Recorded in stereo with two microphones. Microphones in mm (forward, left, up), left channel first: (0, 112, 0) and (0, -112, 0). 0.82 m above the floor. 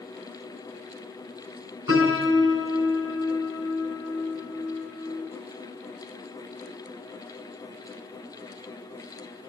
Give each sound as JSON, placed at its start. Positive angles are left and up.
{"t": 1.9, "sound": "a piano", "side_deg": 70, "distance_m": 8.5}